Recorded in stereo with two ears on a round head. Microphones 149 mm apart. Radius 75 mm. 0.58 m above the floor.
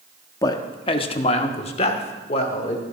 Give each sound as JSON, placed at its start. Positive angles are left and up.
{"t": 0.4, "sound": "a man speaking", "side_deg": 20, "distance_m": 0.7}